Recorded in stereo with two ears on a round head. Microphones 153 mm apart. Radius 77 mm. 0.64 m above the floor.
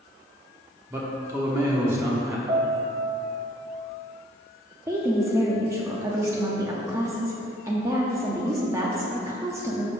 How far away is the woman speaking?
About 0.8 m.